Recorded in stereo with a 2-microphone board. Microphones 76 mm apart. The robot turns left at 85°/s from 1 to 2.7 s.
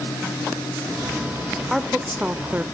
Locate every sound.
1.7 s a woman speaking: centre (ahead or behind), 0.8 m; by 2.6 s 25° right (ahead or behind), 0.8 m